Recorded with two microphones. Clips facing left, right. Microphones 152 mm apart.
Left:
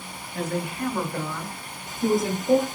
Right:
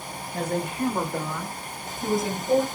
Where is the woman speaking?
40° right (ahead or behind), 1.3 m; by 2.7 s 35° left (ahead or behind), 1.1 m.